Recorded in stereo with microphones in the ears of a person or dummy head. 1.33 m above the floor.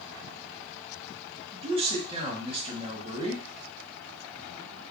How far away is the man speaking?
About 1.0 m.